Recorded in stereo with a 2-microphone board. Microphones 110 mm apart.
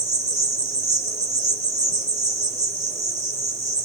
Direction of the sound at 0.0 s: 30° right (ahead or behind).